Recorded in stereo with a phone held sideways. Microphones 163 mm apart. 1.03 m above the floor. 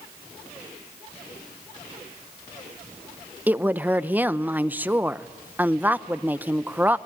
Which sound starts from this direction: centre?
A woman speaking, at 3.5 s.